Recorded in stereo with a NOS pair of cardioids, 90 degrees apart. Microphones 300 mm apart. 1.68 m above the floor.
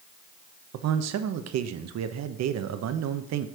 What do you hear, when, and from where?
0.7 s a man speaking: 65° right, 0.8 m